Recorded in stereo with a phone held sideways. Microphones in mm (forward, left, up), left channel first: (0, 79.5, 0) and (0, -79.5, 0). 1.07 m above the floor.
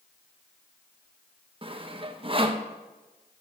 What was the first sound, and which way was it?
Sawing, 35° right (ahead or behind).